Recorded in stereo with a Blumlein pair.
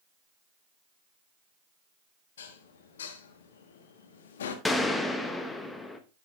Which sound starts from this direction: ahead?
A gunshot, at 4.7 s.